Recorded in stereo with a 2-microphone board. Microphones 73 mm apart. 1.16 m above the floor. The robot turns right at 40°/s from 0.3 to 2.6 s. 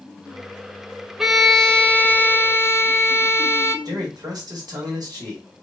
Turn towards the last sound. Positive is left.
turn(degrees=-60)  # may be behind; listen again after turning